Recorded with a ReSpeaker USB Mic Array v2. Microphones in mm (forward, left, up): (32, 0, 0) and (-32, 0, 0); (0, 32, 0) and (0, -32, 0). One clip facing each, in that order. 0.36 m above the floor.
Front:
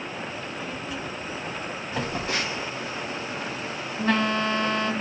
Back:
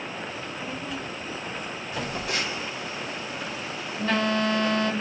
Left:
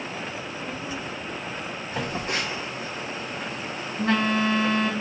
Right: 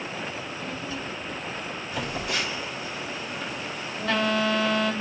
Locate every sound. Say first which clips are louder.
0.4 s a child speaking: even, left 1 dB; 145° left, 0.7 m; by 1.8 s 15° left, 0.8 m
1.9 s a phone buzzing: front 2 dB, left 1 dB; 50° left, 2.5 m